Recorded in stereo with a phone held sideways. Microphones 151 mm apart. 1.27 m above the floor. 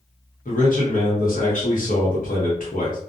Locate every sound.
0.5 s a man speaking: 60° left (ahead or behind), 1.0 m